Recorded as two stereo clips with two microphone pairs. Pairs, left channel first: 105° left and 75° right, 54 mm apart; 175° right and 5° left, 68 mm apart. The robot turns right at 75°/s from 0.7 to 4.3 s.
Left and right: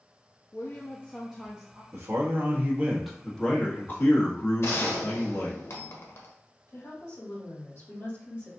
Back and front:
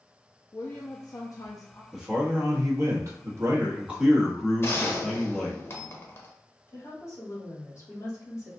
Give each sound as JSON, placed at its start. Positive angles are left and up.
{"t": 0.5, "sound": "a woman speaking", "azimuth_deg": 150, "distance_m": 0.6}
{"t": 1.9, "sound": "a man speaking", "azimuth_deg": -75, "distance_m": 1.3}
{"t": 4.6, "sound": "a gunshot", "azimuth_deg": 135, "distance_m": 0.9}
{"t": 6.7, "sound": "a woman speaking", "azimuth_deg": 140, "distance_m": 2.0}